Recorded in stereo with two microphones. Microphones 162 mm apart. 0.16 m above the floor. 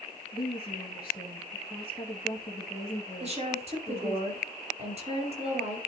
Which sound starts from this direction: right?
A woman speaking, at 3.2 s.